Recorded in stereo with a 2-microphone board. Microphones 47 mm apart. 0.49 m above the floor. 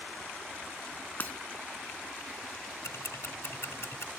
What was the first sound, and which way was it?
Breaking glass, 35° left (ahead or behind).